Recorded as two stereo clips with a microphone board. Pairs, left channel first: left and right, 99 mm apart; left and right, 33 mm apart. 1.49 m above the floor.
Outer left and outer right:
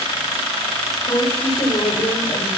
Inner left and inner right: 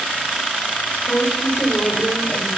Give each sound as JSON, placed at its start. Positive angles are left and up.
{"t": 0.9, "sound": "a woman speaking", "side_deg": 70, "distance_m": 5.0}